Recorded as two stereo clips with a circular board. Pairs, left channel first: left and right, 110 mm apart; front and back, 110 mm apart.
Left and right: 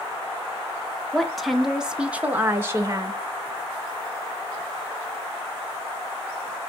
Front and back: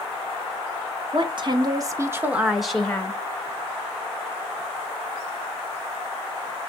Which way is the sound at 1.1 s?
175° left.